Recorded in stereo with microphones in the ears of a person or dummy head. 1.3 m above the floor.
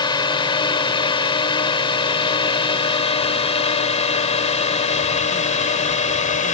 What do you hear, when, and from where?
0.0 s a drone: 25° left (ahead or behind); by 6.5 s 35° left (ahead or behind)